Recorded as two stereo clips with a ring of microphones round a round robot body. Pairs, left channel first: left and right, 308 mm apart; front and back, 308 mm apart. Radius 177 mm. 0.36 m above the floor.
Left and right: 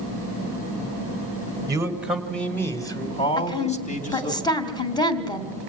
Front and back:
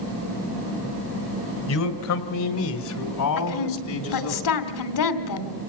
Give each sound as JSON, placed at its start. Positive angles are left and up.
{"t": 1.7, "sound": "a man speaking", "azimuth_deg": -15, "distance_m": 2.0}
{"t": 3.4, "sound": "a woman speaking", "azimuth_deg": 15, "distance_m": 2.5}